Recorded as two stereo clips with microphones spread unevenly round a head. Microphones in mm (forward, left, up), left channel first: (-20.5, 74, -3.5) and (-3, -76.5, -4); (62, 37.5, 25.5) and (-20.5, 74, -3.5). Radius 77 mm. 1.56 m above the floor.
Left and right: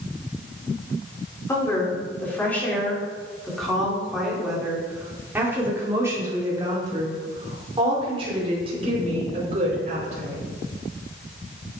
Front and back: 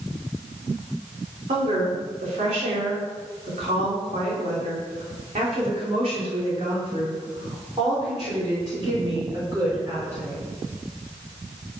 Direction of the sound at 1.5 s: 170° left.